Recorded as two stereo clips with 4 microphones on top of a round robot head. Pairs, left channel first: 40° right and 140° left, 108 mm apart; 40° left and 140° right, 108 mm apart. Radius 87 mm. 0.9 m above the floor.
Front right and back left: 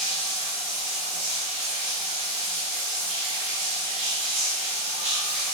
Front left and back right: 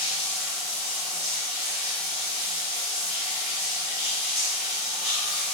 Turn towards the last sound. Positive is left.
turn(degrees=120)